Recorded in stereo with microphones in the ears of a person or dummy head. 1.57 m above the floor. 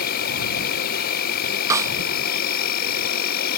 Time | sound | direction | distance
0.0 | an insect | 50° left (ahead or behind) | ?
1.7 | a snare drum | 15° right (ahead or behind) | ?